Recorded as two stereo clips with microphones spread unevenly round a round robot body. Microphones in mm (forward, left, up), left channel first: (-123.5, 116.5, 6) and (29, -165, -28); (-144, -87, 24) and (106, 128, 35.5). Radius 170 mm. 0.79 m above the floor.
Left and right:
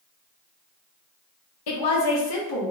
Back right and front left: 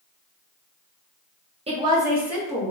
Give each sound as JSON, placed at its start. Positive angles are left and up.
{"t": 1.7, "sound": "a woman speaking", "azimuth_deg": 110, "distance_m": 0.9}